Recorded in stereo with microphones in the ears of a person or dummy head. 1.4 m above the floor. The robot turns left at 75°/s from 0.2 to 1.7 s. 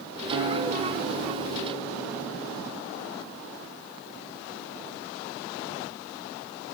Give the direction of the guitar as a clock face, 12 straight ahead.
5 o'clock.